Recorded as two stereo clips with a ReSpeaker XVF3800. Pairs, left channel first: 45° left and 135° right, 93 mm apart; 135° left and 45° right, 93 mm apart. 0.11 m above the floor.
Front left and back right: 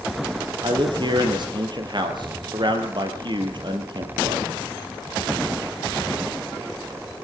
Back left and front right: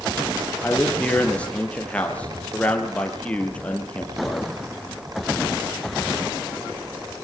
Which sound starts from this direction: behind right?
A man speaking, at 0.6 s.